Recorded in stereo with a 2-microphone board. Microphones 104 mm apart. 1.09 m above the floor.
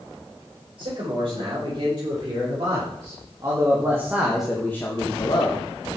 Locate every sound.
0.8 s a man speaking: 60° right (ahead or behind), 5.5 m; by 5.6 s 55° left (ahead or behind), 1.9 m